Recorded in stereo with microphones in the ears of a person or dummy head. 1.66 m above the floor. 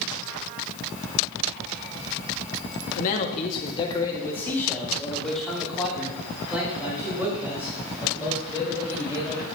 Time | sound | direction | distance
3.0 | a man speaking | 45° left (ahead or behind) | 1.1 m